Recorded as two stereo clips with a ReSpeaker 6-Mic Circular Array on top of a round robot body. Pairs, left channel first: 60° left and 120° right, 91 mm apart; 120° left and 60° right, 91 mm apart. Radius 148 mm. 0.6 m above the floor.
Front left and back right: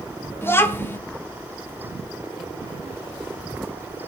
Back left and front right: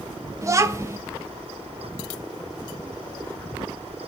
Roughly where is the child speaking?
Ahead.